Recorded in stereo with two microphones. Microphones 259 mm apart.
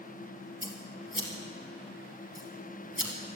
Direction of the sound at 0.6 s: 50° left (ahead or behind).